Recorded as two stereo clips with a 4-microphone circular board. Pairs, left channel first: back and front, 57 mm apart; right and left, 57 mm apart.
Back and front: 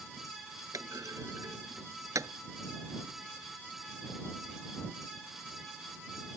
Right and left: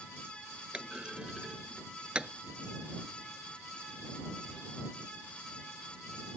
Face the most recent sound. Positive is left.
turn(degrees=20)